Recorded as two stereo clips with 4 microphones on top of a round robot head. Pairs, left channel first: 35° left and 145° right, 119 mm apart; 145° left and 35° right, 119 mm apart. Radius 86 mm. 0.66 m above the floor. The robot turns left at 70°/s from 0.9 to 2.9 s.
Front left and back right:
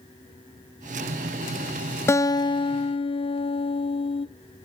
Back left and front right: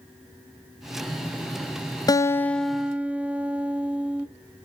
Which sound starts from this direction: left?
A guitar, at 2.1 s.